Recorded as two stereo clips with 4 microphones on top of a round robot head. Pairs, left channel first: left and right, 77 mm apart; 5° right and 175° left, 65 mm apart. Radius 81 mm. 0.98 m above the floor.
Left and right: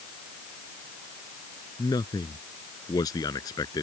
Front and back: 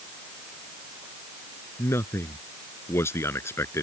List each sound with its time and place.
1.8 s a man speaking: 45° left